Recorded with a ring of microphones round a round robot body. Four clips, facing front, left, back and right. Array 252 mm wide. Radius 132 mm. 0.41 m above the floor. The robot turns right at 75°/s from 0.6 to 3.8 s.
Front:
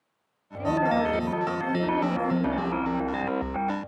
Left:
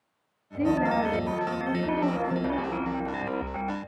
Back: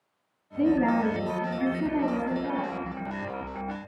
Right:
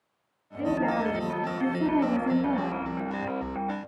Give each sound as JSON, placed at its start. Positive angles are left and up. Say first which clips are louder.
{"t": 0.6, "sound": "a woman speaking", "louder": "left 2 dB, back 1 dB", "azimuth_deg": 150, "distance_m": 9.5}